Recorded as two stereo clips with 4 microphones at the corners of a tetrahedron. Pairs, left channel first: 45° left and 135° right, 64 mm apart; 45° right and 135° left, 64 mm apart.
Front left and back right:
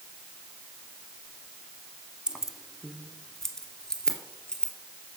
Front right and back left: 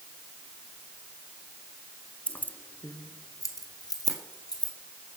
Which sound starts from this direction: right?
Keys jangling, at 2.3 s.